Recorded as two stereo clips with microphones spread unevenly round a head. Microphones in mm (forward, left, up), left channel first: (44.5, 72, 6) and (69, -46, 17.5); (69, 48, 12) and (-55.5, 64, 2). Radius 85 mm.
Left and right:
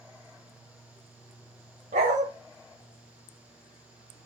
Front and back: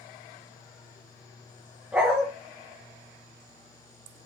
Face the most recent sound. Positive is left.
turn(degrees=-105)